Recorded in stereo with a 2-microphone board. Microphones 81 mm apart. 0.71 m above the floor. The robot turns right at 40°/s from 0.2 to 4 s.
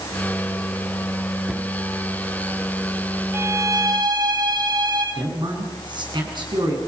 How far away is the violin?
About 9.5 m.